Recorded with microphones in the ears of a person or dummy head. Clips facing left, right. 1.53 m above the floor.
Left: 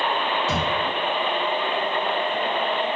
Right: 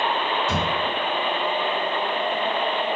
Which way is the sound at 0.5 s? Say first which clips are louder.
Even; 10° left (ahead or behind).